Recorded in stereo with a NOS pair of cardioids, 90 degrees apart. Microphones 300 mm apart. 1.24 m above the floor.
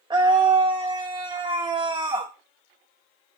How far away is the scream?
About 0.5 m.